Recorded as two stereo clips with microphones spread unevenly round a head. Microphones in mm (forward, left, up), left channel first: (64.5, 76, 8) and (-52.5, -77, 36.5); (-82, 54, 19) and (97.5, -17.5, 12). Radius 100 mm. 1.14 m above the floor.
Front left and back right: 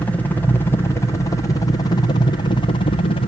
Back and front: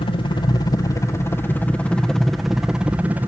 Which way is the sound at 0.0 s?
115° left.